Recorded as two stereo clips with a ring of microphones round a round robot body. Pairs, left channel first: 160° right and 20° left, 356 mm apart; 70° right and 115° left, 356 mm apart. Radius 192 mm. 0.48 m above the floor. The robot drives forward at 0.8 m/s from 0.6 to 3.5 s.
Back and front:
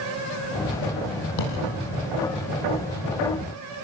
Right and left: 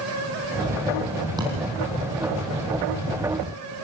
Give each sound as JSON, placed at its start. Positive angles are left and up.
{"t": 1.4, "sound": "a thud", "azimuth_deg": -165, "distance_m": 4.5}